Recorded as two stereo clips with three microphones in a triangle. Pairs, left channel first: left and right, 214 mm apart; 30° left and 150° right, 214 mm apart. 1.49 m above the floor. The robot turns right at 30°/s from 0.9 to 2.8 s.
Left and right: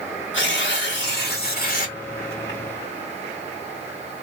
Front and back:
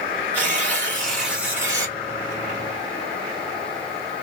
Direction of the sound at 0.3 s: 110° left.